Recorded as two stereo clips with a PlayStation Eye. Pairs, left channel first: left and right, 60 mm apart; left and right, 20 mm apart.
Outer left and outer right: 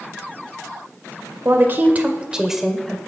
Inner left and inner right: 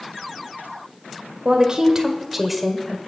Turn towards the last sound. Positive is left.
turn(degrees=10)  # may be behind; listen again after turning